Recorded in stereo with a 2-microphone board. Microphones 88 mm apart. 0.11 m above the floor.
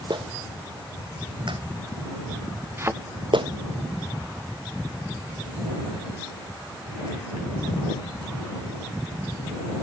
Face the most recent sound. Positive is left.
turn(degrees=-30)  # may be behind; listen again after turning